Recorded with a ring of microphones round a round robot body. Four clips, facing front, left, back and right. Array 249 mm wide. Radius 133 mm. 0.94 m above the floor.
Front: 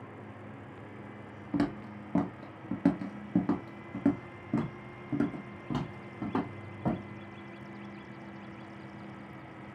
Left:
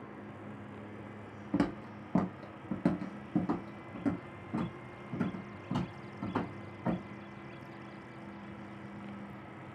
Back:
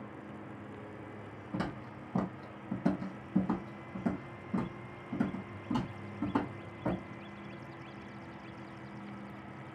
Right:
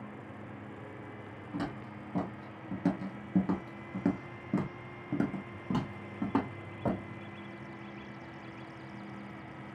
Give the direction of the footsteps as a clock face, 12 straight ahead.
10 o'clock.